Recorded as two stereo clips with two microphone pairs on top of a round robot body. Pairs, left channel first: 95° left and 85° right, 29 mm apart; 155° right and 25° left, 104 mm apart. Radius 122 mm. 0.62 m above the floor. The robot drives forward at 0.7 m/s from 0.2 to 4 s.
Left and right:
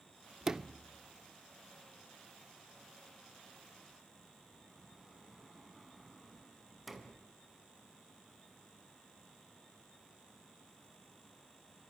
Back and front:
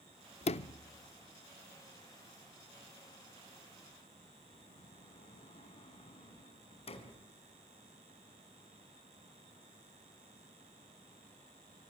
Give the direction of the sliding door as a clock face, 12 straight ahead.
5 o'clock.